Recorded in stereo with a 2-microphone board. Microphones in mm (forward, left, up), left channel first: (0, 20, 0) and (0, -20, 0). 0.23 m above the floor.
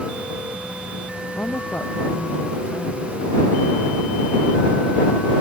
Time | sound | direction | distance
1.4 | a woman speaking | 50° left (ahead or behind) | ?